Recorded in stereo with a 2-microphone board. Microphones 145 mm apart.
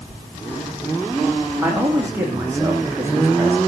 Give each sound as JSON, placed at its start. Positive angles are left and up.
{"t": 1.6, "sound": "a man speaking", "side_deg": -15, "distance_m": 7.5}